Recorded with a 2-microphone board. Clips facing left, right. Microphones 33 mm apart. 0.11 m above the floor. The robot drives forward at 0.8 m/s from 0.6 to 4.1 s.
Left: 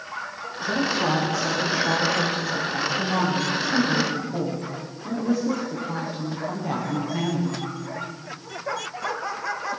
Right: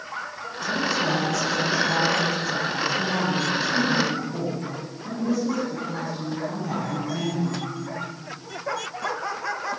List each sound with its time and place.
0.6 s a woman speaking: 20° left (ahead or behind), 8 m; by 7.6 s 15° left (ahead or behind), 10.5 m